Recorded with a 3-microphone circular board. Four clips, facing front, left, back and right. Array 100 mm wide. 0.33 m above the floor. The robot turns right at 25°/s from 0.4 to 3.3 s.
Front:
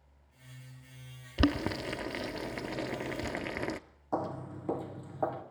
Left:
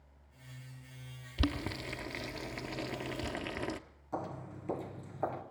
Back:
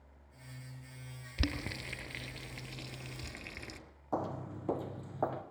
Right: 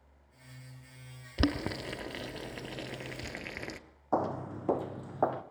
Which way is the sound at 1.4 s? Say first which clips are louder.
Right 5 dB, front 10 dB; 40° right.